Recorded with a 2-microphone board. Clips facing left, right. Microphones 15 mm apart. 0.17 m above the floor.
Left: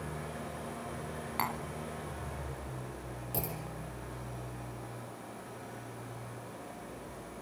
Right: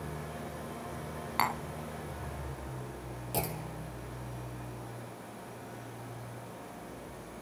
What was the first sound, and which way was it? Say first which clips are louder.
An engine running: even; 40° left (ahead or behind).